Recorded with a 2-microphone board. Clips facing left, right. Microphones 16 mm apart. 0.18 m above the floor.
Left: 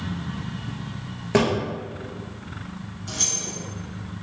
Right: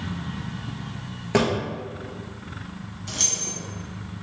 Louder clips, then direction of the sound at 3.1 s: Right 1 dB; 10° right (ahead or behind).